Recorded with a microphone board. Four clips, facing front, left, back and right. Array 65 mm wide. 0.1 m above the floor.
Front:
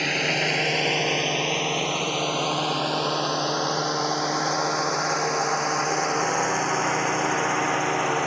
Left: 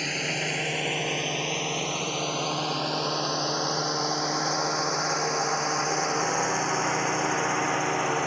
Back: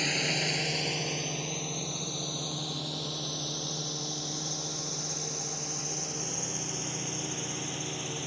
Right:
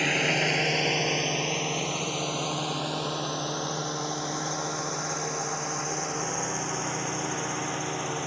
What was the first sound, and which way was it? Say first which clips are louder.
A drone: right 5 dB, front 7 dB; 40° right.